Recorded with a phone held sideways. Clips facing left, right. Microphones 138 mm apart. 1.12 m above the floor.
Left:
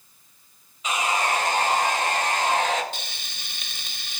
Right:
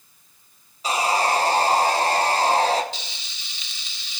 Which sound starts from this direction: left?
Frying, at 2.9 s.